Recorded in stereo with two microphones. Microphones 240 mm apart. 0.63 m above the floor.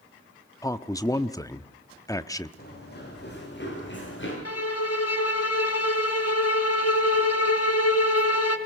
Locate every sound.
0.6 s a man speaking: 15° left (ahead or behind), 0.9 m
2.6 s running footsteps: 40° left (ahead or behind), 9.5 m; by 4.3 s 50° left (ahead or behind), 10.5 m
4.5 s a violin: 80° left, 1.6 m